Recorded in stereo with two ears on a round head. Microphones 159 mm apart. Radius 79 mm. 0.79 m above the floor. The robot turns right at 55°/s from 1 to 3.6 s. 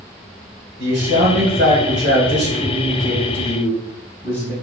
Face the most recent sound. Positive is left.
turn(degrees=5)